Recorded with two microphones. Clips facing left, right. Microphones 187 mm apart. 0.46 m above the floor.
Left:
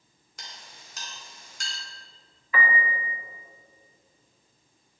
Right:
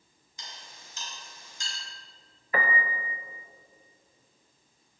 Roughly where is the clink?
Left.